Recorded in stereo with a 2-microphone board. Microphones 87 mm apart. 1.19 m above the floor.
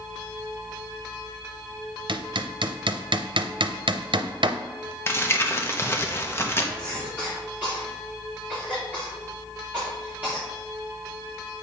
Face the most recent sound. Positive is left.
turn(degrees=-20)  # may be behind; listen again after turning